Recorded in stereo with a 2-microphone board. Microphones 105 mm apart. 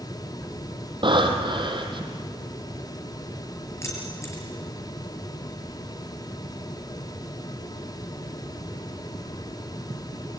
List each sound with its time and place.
1.0 s breathing: 50° right (ahead or behind), 3 m
3.8 s keys jangling: 30° left (ahead or behind), 6.5 m